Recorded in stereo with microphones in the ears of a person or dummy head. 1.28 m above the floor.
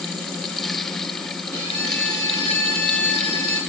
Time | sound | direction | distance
1.5 | a violin | 35° right (ahead or behind) | 4.5 m